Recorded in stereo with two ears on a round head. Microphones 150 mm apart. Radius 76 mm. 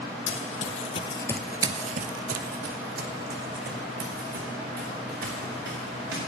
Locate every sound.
0.3 s running footsteps: 50° left (ahead or behind), 1.3 m; by 6.2 s 65° right (ahead or behind), 4.5 m